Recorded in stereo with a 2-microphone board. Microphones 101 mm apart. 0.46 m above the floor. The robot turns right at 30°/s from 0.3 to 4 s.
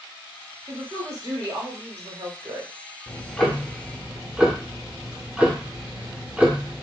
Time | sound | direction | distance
0.7 | a woman speaking | 140° right | 1.1 m
3.1 | ticking | 15° left (ahead or behind) | 0.7 m